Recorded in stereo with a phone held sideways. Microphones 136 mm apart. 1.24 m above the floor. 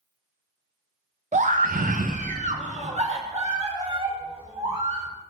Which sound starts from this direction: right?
A scream, at 1.3 s.